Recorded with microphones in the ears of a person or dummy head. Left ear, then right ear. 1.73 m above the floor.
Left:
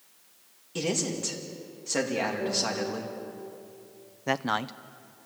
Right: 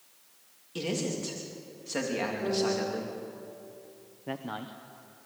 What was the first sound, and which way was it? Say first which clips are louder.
A man speaking: left 3 dB; 10° left (ahead or behind).